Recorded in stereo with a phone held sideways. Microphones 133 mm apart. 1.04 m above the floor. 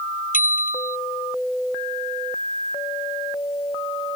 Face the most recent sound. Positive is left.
turn(degrees=85)